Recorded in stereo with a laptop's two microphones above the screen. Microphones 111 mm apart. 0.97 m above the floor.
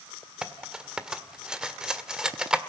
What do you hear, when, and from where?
0.4 s cutlery clinking: 5° right (ahead or behind), 1.6 m